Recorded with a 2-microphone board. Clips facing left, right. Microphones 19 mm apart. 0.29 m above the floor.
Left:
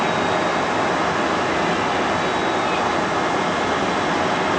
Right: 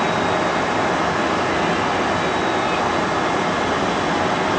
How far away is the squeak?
I don't hear a squeak.